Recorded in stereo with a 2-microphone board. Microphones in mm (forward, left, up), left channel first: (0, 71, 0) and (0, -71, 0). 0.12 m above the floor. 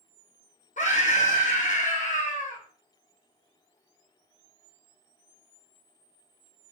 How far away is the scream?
About 4 m.